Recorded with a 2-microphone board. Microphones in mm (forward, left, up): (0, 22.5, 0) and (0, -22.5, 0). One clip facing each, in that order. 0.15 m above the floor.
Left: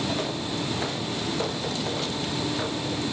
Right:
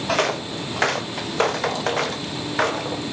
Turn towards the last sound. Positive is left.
turn(degrees=-75)  # may be behind; listen again after turning